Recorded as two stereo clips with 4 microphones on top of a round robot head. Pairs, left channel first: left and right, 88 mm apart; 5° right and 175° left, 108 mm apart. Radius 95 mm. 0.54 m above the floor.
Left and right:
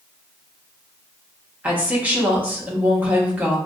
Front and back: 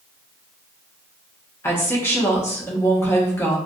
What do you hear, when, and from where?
1.6 s a woman speaking: 40° right, 1.0 m